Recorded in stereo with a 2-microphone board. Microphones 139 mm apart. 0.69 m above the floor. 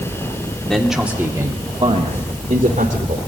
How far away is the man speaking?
About 1.8 m.